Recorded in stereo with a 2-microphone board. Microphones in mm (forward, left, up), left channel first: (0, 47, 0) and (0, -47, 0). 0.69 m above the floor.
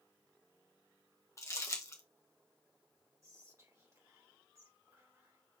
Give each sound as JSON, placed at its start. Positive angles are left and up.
{"t": 1.4, "sound": "crumpling", "side_deg": 30, "distance_m": 1.0}
{"t": 3.2, "sound": "whispering", "side_deg": -35, "distance_m": 2.0}